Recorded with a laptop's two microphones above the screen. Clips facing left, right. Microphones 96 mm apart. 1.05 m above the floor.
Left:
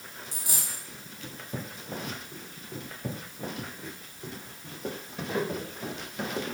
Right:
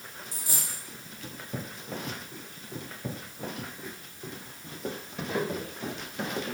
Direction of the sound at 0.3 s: 75° left (ahead or behind).